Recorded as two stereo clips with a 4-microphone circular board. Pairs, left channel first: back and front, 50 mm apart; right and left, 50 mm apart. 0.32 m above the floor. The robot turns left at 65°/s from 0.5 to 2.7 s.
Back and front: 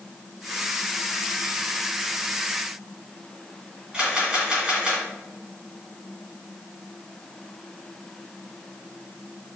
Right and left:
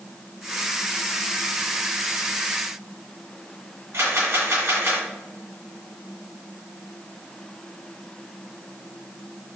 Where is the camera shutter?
70° left, 2 m.